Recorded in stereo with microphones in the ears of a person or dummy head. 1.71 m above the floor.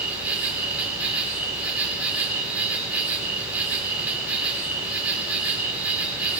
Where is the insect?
5° right (ahead or behind), 3 m.